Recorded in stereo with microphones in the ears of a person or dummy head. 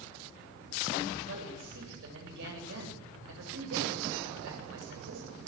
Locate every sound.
1.3 s a man speaking: 70° right (ahead or behind), 9 m